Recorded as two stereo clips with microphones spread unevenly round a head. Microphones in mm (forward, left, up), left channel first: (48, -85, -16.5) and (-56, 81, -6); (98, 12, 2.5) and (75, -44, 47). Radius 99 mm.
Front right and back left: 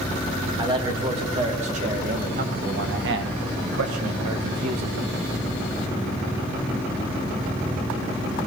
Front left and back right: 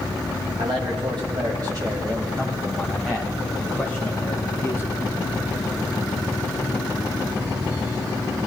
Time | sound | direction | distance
0.6 | a man speaking | 170° right | 2.5 m